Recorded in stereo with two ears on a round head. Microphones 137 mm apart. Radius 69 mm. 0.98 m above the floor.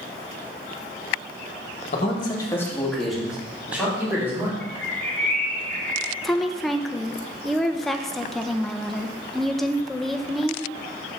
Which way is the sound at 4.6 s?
10° left (ahead or behind).